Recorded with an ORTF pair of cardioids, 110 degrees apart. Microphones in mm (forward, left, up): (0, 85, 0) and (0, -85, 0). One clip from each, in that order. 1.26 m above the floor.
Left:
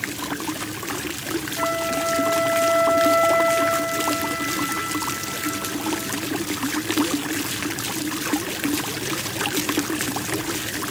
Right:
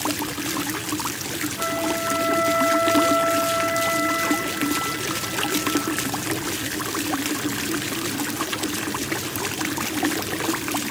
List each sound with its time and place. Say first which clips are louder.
1.6 s a flute: left 2 dB; 40° left, 8 m